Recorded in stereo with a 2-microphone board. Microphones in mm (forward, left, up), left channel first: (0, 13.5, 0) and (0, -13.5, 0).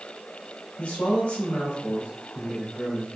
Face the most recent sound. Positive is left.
turn(degrees=85)